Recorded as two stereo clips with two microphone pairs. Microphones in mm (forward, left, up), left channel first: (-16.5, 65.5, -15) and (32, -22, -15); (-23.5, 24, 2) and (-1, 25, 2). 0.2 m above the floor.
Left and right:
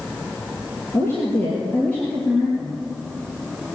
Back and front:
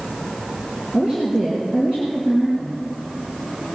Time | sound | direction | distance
0.9 | a woman speaking | 60° left | 4 m